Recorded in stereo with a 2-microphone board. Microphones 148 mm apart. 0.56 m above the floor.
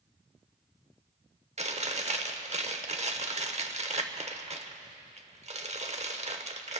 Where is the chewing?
50° right (ahead or behind), 0.9 m.